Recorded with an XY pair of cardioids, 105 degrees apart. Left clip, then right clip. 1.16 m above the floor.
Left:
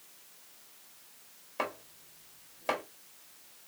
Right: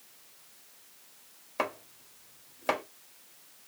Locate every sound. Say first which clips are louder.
1.6 s chopping: right 3 dB; 30° right, 2.0 m